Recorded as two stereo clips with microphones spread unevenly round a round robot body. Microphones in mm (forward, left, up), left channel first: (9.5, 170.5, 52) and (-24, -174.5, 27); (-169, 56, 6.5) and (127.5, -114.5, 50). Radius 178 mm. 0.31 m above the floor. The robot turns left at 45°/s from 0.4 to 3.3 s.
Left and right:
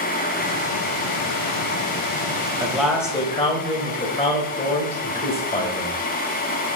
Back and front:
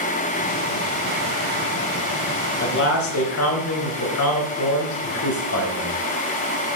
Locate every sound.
2.6 s a man speaking: 170° right, 1.9 m; by 6.0 s 155° left, 1.9 m